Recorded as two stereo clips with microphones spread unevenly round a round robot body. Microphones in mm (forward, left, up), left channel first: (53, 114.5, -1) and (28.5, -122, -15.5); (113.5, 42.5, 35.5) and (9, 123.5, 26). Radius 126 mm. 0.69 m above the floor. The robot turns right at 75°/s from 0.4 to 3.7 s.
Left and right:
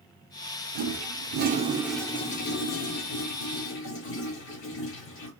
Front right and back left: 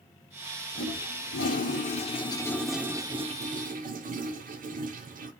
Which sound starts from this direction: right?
A toilet flushing, at 0.8 s.